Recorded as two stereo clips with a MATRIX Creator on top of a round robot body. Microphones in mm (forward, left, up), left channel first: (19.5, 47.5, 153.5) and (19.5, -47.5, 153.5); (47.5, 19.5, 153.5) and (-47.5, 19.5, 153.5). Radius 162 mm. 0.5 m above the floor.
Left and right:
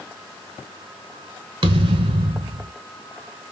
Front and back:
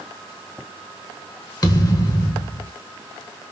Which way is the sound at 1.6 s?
55° right.